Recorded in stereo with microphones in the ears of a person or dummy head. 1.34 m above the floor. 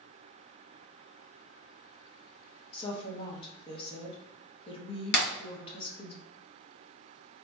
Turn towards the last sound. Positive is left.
turn(degrees=65)  # may be behind; listen again after turning